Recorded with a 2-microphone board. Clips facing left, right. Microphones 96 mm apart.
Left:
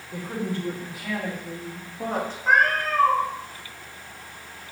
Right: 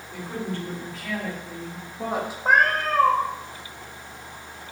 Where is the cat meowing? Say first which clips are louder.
Right 1 dB; 50° right (ahead or behind), 1.7 m.